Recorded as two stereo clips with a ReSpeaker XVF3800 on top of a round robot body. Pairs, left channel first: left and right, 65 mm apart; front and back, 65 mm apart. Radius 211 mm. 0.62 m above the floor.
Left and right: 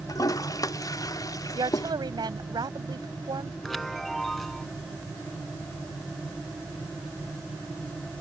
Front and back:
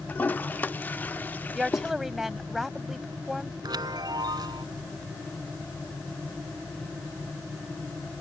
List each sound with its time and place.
0.1 s a toilet flushing: 60° left
1.6 s a woman speaking: 95° right
3.6 s a chime: 175° left